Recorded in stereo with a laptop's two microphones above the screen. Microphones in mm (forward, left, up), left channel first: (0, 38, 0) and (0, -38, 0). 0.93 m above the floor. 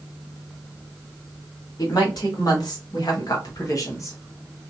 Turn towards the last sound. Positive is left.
turn(degrees=40)  # may be behind; listen again after turning